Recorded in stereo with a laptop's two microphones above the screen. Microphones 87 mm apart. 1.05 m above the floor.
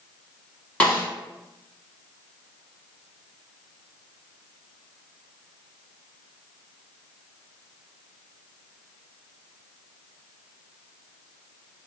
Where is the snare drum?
15° left (ahead or behind), 1.7 m.